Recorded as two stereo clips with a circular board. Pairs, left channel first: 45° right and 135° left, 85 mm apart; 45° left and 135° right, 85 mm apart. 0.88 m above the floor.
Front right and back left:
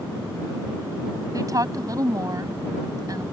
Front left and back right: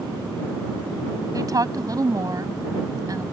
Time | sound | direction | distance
1.3 | a woman speaking | straight behind | ?